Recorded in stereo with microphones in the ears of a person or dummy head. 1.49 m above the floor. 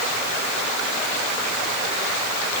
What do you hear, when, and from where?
Only background noise.